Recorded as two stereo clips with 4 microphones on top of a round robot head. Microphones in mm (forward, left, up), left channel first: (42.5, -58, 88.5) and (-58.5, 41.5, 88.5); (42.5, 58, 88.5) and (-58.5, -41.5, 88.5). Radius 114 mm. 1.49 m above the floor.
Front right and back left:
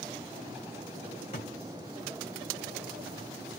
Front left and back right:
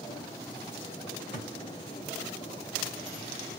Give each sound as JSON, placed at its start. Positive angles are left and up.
{"t": 1.3, "sound": "a thud", "azimuth_deg": -5, "distance_m": 1.2}